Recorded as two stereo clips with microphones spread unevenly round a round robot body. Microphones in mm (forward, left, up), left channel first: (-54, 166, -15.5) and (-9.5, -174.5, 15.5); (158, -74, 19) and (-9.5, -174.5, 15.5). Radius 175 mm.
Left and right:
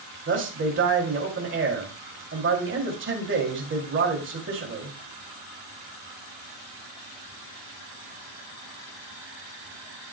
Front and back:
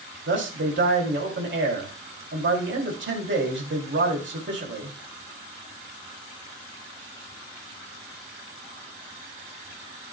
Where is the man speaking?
140° right, 2.5 m.